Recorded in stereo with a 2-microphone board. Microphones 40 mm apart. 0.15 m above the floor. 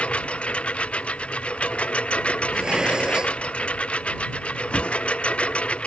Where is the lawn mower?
25° left (ahead or behind).